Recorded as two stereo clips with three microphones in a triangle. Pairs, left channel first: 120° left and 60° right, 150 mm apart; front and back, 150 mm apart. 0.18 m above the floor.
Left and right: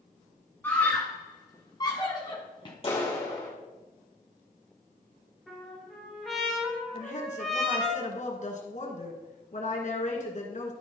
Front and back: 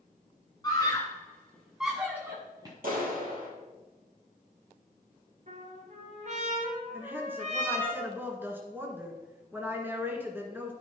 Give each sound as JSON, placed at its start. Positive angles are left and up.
{"t": 0.6, "sound": "a scream", "azimuth_deg": 50, "distance_m": 1.6}
{"t": 2.8, "sound": "a clap", "azimuth_deg": 170, "distance_m": 3.5}
{"t": 5.5, "sound": "a trumpet", "azimuth_deg": -150, "distance_m": 3.0}
{"t": 6.9, "sound": "a woman speaking", "azimuth_deg": 105, "distance_m": 1.9}